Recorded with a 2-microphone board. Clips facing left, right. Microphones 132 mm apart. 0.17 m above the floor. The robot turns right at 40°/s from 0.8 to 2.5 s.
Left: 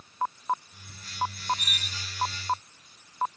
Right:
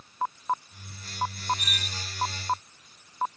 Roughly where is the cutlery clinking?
Left.